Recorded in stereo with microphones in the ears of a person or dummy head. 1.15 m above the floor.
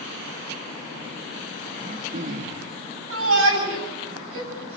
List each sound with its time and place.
1.8 s throat clearing: 50° right (ahead or behind), 1.7 m
3.1 s a shout: 85° right, 8 m